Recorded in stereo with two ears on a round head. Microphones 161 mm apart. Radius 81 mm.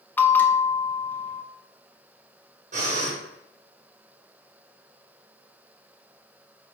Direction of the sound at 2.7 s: 45° right (ahead or behind).